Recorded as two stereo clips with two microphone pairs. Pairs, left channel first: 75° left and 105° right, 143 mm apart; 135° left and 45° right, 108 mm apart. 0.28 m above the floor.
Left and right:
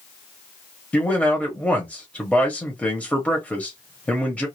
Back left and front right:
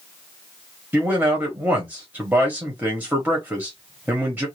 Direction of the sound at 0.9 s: 10° left.